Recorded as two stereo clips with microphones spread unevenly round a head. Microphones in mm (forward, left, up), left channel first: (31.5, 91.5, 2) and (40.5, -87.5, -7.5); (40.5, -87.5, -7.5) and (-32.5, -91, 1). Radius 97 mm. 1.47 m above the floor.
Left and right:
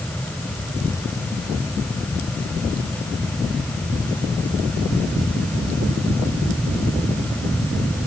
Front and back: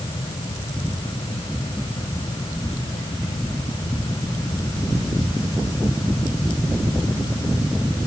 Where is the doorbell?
I don't hear a doorbell.